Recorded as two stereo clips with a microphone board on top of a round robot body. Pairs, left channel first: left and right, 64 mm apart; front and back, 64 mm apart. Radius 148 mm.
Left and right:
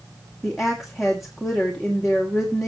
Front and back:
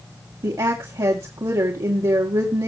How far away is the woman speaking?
About 2.5 m.